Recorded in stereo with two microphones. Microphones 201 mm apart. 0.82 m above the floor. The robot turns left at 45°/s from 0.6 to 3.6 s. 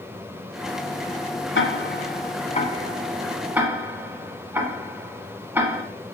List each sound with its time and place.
1.6 s ticking: 65° left (ahead or behind), 1.3 m; by 5.8 s 10° right (ahead or behind), 1.3 m